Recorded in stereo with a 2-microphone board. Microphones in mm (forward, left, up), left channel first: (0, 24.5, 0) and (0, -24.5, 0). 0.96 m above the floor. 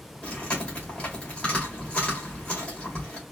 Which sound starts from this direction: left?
Chewing, at 0.2 s.